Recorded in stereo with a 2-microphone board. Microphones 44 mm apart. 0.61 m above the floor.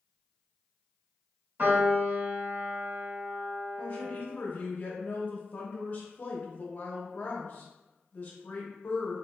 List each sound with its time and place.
1.6 s a piano: 50° right (ahead or behind), 1.3 m
3.8 s a woman speaking: 40° left (ahead or behind), 0.7 m